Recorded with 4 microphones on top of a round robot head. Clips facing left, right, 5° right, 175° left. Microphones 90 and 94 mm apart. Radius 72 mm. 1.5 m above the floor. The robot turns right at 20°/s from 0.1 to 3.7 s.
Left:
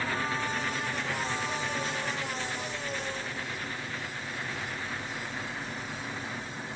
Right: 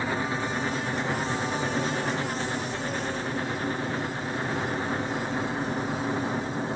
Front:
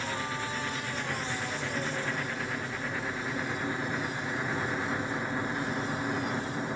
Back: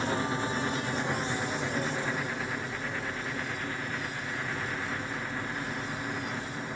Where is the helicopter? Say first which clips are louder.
Right 3 dB, back 4 dB; 145° right; by 6.8 s 75° right.